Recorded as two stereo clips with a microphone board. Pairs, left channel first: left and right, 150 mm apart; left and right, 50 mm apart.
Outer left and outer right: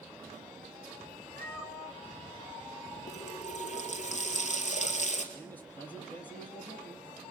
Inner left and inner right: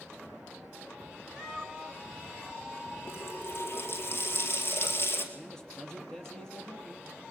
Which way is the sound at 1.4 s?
15° left (ahead or behind).